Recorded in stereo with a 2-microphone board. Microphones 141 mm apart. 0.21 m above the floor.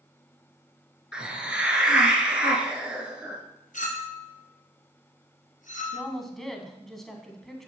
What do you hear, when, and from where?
1.1 s a hiss: 10° right (ahead or behind), 1.5 m
3.7 s a clink: 70° left (ahead or behind), 2.5 m
5.9 s a woman speaking: centre (ahead or behind), 1.3 m